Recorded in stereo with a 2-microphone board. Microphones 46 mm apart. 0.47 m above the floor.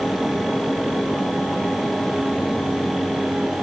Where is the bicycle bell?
No bicycle bell in this recording.